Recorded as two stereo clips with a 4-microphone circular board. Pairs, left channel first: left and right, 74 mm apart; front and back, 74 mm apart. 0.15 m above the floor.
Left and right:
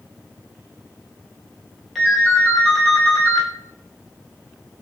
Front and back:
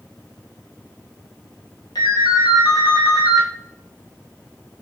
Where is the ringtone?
Straight ahead, 1.3 m.